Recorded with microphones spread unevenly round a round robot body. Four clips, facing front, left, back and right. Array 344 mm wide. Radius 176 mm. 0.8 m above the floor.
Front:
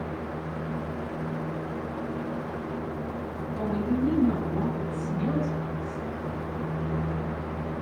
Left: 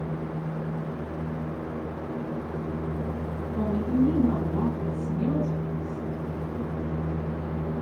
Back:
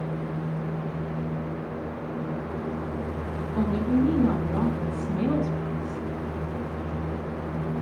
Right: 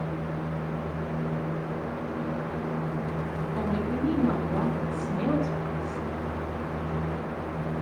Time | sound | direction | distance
3.5 | a woman speaking | 165° right | 7.5 m